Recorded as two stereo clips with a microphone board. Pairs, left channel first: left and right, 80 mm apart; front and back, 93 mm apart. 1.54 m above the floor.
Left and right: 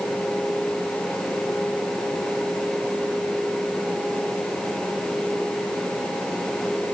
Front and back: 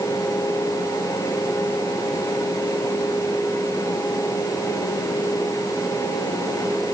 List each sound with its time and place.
Only background noise.